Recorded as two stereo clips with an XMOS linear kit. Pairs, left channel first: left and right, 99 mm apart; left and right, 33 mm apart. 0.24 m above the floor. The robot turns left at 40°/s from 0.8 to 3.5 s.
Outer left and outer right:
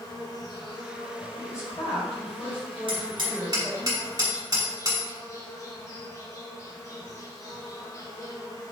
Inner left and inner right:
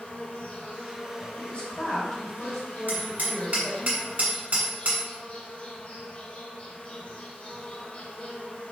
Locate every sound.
0.0 s an insect: 140° left, 1.4 m; by 8.7 s 35° left, 1.4 m
1.4 s a woman speaking: 85° left, 1.8 m; by 3.9 s straight ahead, 1.8 m
2.9 s hammering: 55° right (ahead or behind), 1.5 m; by 5.1 s 40° right (ahead or behind), 1.5 m